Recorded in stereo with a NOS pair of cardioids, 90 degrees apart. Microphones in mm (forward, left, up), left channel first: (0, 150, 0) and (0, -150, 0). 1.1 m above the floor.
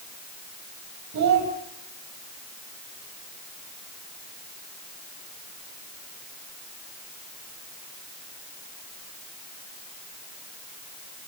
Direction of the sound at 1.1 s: 65° right.